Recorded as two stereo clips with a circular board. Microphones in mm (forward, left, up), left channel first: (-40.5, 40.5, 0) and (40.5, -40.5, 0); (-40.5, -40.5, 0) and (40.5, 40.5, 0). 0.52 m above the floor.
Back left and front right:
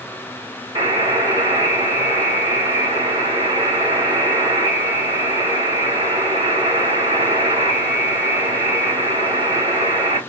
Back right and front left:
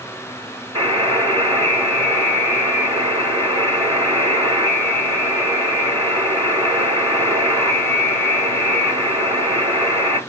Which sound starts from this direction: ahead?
A buzzer, at 0.8 s.